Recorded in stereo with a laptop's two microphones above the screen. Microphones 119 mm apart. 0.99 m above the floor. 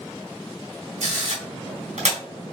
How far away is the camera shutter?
About 2 m.